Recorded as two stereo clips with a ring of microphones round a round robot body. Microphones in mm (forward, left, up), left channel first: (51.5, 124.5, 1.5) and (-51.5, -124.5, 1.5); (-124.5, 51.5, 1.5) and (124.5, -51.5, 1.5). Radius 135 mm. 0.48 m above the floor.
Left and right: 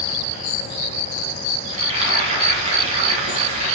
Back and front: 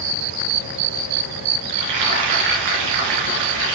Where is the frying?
45° right, 3 m.